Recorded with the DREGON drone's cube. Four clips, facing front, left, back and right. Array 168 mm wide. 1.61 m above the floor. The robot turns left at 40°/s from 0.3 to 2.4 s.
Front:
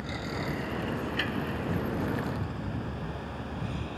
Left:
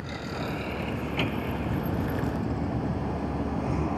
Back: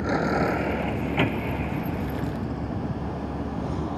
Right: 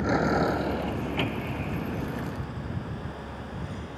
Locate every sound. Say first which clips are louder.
0.0 s a vehicle: right 10 dB, back 11 dB; 135° right; by 4.0 s 125° left